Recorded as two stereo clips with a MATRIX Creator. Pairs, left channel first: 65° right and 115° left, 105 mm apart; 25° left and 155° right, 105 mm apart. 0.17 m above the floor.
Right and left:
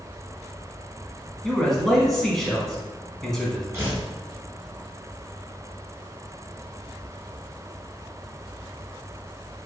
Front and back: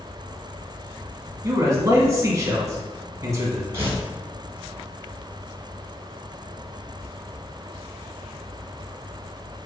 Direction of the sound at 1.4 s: 150° right.